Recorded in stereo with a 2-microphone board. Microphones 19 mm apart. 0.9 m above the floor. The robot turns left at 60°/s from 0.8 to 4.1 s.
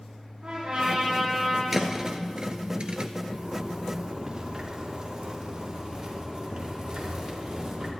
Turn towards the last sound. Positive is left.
turn(degrees=-140)